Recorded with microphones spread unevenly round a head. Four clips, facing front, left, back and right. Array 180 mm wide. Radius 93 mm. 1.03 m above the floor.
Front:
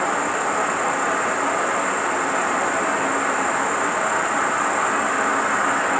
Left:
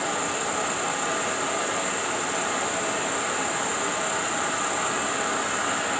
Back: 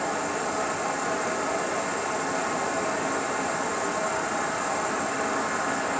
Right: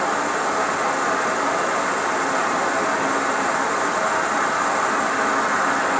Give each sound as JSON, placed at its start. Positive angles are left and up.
{"t": 0.0, "sound": "an insect", "azimuth_deg": -35, "distance_m": 0.7}